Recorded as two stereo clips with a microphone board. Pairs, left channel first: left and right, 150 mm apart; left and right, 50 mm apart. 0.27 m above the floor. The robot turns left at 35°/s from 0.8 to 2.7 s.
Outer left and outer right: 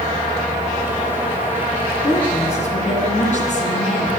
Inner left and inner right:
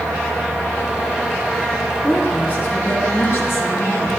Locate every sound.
2.0 s a woman speaking: 35° left (ahead or behind), 3 m; by 4.1 s 50° left (ahead or behind), 3 m